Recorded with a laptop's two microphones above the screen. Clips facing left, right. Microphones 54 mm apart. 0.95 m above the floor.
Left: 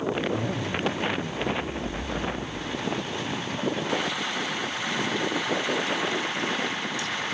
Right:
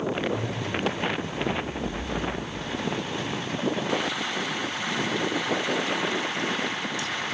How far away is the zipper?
About 1.4 m.